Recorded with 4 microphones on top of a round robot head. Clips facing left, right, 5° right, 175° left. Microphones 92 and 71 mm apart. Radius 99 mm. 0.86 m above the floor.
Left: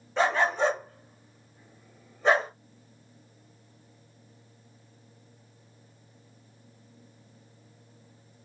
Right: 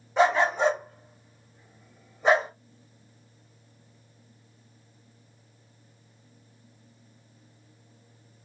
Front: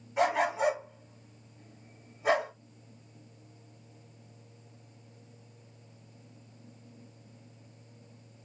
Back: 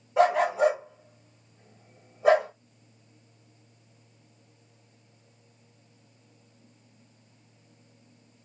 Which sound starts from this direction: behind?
A dog barking, at 0.2 s.